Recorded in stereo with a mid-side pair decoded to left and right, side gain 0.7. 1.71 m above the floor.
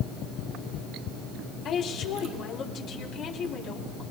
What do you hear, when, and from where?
1.6 s a woman speaking: 50° left, 3 m